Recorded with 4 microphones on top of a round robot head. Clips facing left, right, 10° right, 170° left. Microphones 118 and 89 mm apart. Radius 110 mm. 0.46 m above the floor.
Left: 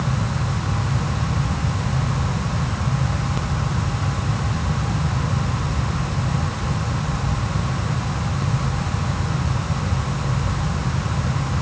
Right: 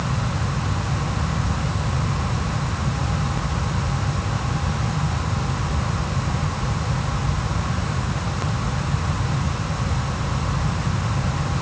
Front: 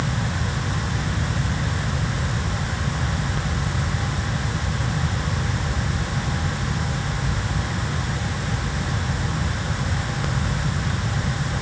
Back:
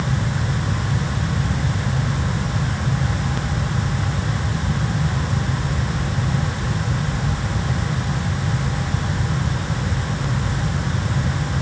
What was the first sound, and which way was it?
Only background noise.